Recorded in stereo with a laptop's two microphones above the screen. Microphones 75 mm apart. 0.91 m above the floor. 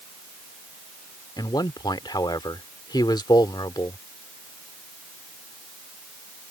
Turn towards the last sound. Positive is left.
turn(degrees=80)